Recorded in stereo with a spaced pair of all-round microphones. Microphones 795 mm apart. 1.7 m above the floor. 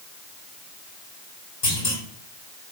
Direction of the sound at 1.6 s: 60° left (ahead or behind).